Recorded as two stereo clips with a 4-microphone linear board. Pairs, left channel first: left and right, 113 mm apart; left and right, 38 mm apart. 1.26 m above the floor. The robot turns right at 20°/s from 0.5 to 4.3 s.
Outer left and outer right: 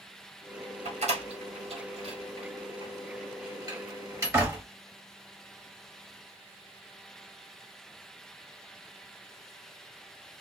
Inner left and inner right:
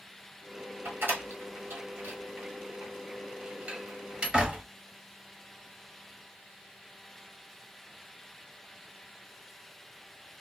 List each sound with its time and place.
0.8 s a door slam: 70° right (ahead or behind), 1.4 m; by 4.6 s 20° right (ahead or behind), 1.4 m